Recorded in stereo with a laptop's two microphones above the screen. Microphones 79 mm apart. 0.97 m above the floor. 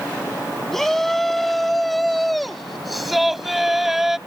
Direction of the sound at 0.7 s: Centre (ahead or behind).